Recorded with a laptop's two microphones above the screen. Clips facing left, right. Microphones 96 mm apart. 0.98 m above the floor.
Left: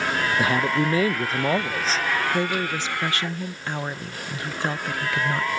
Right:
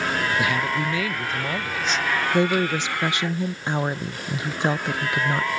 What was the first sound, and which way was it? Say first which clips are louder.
A man speaking: left 2 dB; 35° left (ahead or behind).